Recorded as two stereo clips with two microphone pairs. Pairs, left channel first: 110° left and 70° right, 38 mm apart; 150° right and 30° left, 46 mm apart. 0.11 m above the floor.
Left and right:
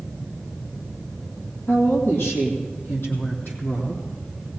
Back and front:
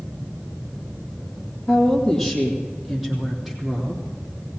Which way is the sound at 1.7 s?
135° left.